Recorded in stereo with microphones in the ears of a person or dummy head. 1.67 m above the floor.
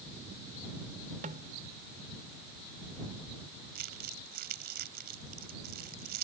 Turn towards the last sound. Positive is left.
turn(degrees=-50)  # may be behind; listen again after turning